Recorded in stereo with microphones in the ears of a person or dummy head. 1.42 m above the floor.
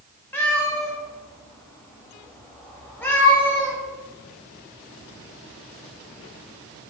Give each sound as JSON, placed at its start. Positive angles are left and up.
{"t": 0.3, "sound": "a cat meowing", "side_deg": 10, "distance_m": 1.0}